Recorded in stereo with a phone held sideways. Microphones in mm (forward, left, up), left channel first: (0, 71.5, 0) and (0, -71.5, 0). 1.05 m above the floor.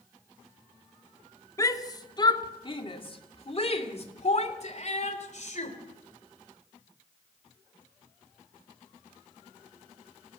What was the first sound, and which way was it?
A shout, 25° left (ahead or behind).